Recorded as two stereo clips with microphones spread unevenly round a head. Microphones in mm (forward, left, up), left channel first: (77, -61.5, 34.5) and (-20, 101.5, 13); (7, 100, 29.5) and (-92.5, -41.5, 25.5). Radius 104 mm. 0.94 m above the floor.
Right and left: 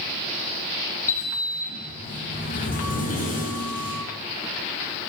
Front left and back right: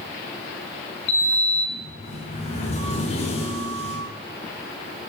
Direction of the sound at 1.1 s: 10° right.